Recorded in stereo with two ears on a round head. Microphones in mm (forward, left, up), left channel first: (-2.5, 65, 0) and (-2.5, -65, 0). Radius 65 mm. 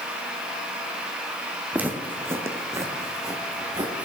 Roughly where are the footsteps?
Centre.